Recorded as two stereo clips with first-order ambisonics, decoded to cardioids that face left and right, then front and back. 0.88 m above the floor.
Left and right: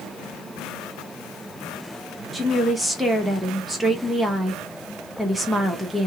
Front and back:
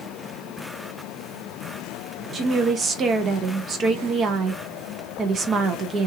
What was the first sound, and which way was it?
A woman speaking, 165° right.